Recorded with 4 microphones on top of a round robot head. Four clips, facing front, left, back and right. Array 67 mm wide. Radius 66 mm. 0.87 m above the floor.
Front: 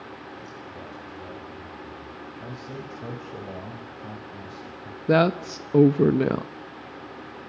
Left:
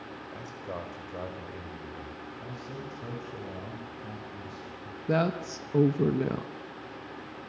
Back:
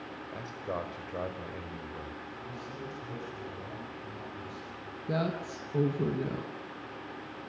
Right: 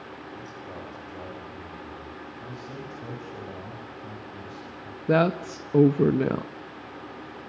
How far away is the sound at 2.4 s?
About 6 m.